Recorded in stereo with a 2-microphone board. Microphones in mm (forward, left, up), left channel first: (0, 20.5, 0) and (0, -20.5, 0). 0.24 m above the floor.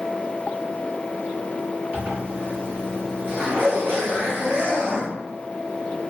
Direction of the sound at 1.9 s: 60° right (ahead or behind).